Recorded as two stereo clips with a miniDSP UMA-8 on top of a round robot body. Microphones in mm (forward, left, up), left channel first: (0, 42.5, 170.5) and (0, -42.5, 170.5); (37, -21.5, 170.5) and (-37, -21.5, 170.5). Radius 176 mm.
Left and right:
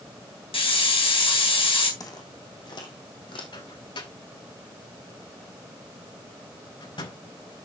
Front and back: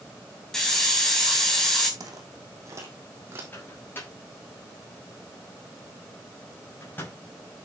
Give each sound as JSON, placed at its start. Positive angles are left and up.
{"t": 0.5, "sound": "a hiss", "azimuth_deg": 85, "distance_m": 3.5}
{"t": 2.0, "sound": "footsteps", "azimuth_deg": 140, "distance_m": 2.0}
{"t": 3.5, "sound": "a microwave", "azimuth_deg": 65, "distance_m": 6.0}